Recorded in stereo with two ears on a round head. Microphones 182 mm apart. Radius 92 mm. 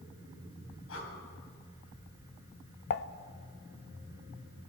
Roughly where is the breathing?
Left.